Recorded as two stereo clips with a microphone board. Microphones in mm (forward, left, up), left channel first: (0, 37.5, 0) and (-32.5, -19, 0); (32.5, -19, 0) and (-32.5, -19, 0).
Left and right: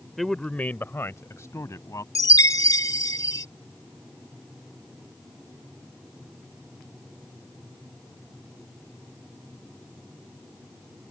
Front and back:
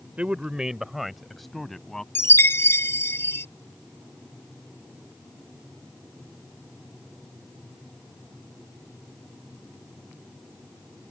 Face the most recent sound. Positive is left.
turn(degrees=45)